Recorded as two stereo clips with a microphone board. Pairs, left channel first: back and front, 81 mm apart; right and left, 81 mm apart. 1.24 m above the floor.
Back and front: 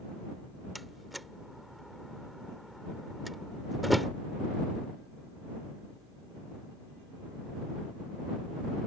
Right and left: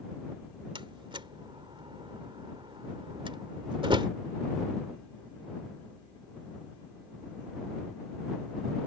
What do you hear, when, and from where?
0.8 s a door slam: 90° left